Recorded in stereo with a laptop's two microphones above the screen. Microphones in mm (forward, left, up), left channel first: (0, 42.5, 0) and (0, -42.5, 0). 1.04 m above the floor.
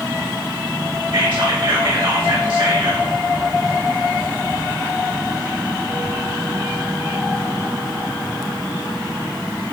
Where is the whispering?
80° right, 5 m.